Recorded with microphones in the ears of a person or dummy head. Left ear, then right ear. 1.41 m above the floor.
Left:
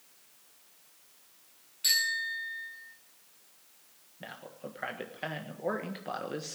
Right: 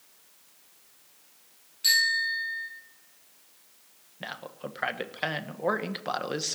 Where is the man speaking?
30° right (ahead or behind), 1.4 m.